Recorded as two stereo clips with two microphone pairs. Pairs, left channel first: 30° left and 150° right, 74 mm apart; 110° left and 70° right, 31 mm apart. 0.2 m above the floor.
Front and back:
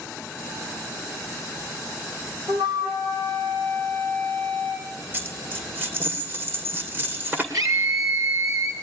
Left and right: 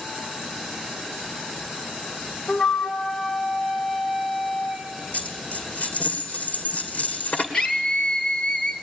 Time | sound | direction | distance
2.5 | a flute | 165° right | 3 m
5.1 | a dropped coin | 145° left | 2 m
7.5 | a scream | 175° left | 4 m